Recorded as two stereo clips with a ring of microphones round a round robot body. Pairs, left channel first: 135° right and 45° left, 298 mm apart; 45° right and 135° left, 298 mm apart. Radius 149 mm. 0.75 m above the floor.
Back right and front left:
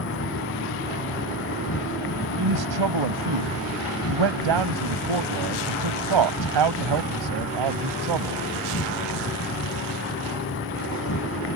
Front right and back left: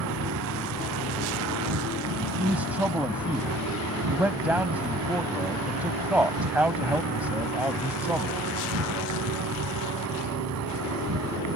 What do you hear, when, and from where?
0.0 s an insect: 175° left
2.4 s a man speaking: 50° left